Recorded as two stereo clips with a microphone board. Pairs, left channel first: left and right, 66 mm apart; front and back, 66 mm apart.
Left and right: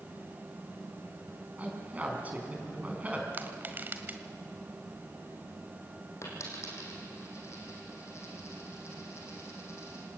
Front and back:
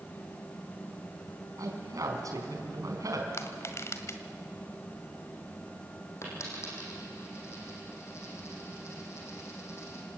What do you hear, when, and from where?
1.6 s a man speaking: 155° right, 3.5 m
3.3 s crushing: 35° right, 1.7 m
6.2 s a dropped coin: 50° left, 6 m